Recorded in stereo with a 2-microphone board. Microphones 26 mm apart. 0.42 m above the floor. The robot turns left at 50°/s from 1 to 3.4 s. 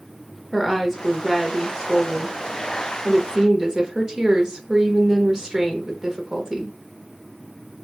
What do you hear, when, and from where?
0.5 s a woman speaking: 5° right, 0.9 m; by 6.7 s 125° right, 0.9 m